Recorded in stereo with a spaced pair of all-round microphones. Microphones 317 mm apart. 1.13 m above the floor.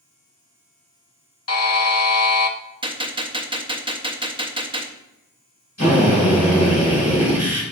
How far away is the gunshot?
About 0.9 m.